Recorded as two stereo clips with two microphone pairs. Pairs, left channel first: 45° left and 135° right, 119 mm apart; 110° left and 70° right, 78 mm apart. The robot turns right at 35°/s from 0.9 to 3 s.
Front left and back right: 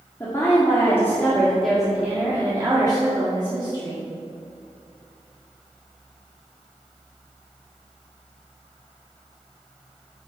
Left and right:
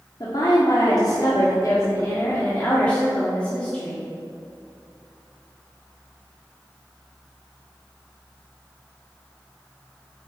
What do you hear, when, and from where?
0.2 s a woman speaking: 110° left, 1.6 m; by 4.1 s 175° right, 1.6 m